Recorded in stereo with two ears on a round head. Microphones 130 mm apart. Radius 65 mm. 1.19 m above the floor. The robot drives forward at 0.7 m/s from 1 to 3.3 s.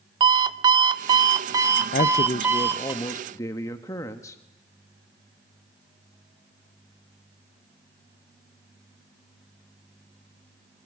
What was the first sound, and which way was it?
An alarm clock, 30° right (ahead or behind).